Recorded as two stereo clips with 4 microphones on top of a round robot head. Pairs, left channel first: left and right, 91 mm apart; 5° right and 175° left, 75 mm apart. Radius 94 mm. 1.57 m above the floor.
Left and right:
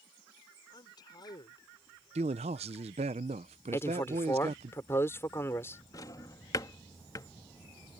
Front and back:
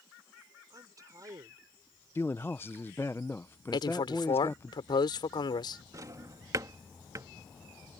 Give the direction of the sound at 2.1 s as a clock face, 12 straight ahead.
3 o'clock.